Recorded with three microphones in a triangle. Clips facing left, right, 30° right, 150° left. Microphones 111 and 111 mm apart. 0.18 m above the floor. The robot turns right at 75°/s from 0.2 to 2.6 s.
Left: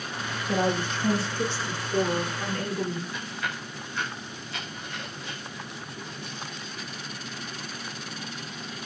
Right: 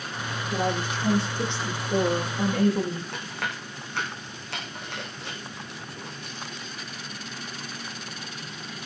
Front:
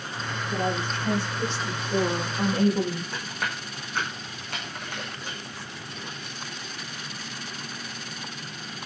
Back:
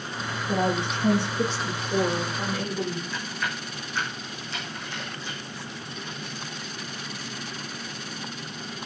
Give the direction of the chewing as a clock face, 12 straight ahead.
2 o'clock.